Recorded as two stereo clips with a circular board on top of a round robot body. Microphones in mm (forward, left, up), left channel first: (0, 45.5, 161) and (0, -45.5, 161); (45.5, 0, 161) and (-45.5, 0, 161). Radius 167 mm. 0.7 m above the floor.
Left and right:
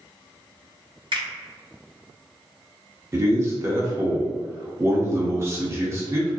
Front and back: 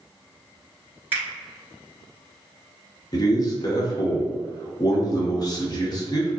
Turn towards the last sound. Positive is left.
turn(degrees=-35)